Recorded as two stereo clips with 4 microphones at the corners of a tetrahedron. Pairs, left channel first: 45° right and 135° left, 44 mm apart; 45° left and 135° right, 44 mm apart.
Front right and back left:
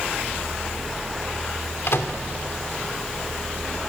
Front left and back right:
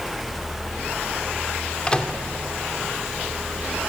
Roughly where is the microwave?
Ahead right.